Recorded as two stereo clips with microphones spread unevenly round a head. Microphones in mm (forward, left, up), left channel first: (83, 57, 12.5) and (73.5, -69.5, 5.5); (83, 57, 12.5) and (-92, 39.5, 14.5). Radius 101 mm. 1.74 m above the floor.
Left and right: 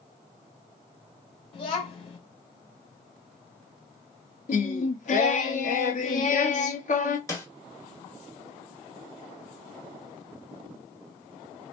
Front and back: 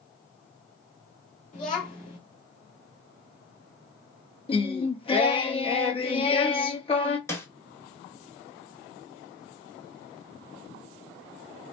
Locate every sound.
1.5 s a child speaking: 50° left, 2.5 m
4.5 s singing: 65° left, 1.2 m
7.3 s a snare drum: 65° left, 1.3 m